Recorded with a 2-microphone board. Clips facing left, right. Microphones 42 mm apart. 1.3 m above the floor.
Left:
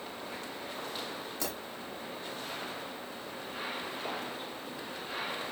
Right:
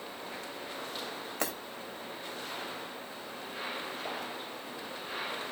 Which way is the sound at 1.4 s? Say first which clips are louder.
Right 4 dB; 55° right (ahead or behind).